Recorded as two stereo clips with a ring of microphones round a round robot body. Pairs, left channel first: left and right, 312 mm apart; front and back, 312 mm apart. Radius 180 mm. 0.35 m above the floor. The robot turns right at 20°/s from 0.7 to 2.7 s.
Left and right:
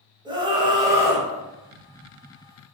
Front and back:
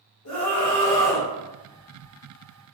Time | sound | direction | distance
0.2 | a scream | 15° right | 1.7 m